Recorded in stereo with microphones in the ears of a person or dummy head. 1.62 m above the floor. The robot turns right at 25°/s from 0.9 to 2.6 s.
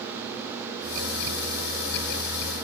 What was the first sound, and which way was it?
Only background noise.